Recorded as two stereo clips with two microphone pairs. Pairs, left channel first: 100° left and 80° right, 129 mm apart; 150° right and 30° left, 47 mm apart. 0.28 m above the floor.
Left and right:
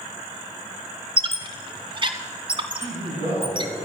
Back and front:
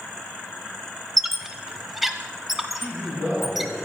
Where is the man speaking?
100° right, 3.5 m.